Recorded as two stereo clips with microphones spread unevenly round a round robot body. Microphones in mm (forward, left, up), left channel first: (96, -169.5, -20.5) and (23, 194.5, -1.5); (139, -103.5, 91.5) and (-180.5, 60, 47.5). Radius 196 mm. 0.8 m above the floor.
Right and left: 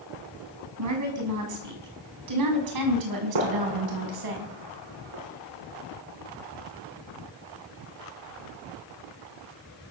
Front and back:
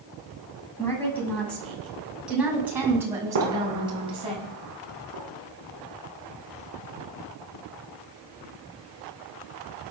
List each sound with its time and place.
0.8 s a woman speaking: 55° left, 6 m; by 4.3 s 80° left, 6 m
3.4 s a gunshot: 100° left, 6 m